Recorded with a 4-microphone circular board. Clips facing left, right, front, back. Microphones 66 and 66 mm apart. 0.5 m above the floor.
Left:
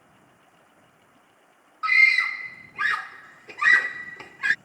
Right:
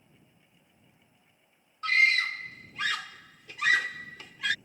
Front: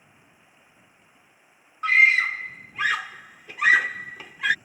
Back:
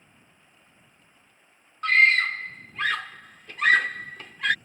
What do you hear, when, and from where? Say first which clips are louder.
0.0 s running water: left 7 dB, front 2 dB; 80° left
1.8 s a scream: left 5 dB, front 1 dB; 75° left